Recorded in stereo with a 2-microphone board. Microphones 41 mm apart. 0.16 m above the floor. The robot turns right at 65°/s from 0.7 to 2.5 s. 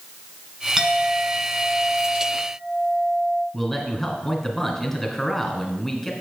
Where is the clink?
150° right, 1.1 m; by 3.4 s 40° right, 1.1 m.